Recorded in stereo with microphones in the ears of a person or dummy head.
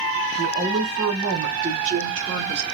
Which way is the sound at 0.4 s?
35° right (ahead or behind).